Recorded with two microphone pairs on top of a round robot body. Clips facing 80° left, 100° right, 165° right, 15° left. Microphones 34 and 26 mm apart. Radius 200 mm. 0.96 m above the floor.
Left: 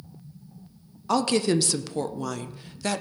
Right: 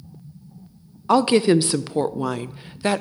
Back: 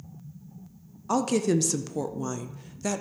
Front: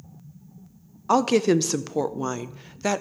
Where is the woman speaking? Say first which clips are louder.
Right 7 dB, front 5 dB; 40° right, 0.6 m.